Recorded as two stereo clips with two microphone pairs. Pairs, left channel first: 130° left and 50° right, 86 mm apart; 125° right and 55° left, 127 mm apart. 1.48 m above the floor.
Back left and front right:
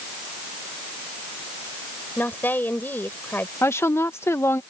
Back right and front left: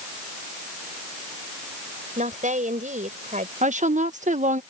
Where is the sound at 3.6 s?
65° left.